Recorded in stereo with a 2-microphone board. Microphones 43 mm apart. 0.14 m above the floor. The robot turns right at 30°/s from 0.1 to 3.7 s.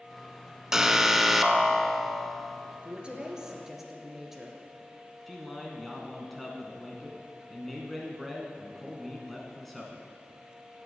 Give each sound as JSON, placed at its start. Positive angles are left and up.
{"t": 0.7, "sound": "an alarm", "side_deg": -15, "distance_m": 0.8}
{"t": 2.8, "sound": "a woman speaking", "side_deg": -30, "distance_m": 2.5}
{"t": 5.3, "sound": "a man speaking", "side_deg": 5, "distance_m": 1.7}